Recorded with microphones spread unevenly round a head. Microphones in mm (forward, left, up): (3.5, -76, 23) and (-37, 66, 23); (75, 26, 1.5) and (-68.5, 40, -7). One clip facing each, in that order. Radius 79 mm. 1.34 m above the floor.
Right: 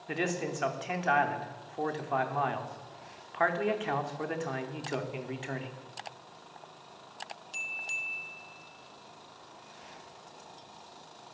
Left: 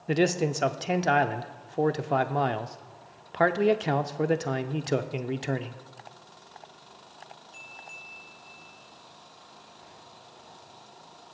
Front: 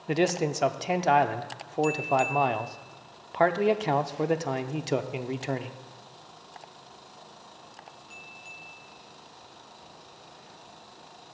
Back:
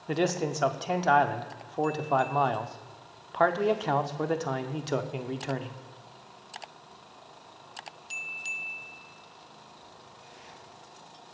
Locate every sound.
0.1 s a man speaking: 70° left, 0.6 m